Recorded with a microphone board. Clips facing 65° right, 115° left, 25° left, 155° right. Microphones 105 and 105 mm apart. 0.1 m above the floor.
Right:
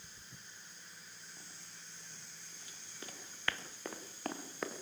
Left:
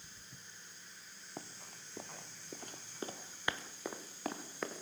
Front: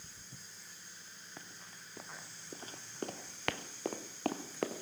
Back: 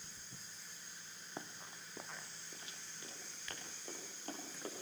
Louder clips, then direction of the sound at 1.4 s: Left 8 dB, back 5 dB; 140° left.